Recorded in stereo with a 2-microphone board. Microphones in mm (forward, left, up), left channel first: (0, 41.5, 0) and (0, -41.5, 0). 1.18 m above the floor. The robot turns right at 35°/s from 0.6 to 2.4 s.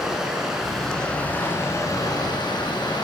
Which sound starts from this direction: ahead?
Running water, at 0.0 s.